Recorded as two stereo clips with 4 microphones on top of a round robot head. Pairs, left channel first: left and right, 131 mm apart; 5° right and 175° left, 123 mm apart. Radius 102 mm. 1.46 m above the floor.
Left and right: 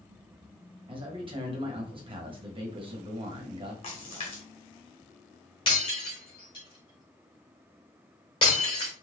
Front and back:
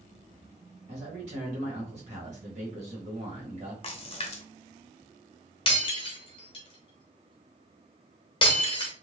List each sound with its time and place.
0.9 s a man speaking: 140° right, 1.3 m
3.8 s a splash: 40° left, 0.8 m
5.7 s breaking glass: 30° left, 1.0 m